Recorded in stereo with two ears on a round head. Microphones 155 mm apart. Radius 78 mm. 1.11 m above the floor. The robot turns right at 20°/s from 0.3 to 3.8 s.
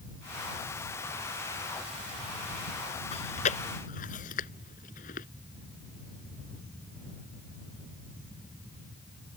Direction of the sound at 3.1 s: 35° left (ahead or behind).